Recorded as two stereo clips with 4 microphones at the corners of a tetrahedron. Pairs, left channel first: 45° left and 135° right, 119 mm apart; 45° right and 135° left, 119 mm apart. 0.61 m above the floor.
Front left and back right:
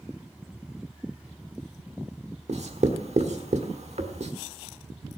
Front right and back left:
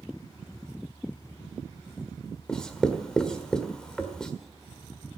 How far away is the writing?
About 1.4 m.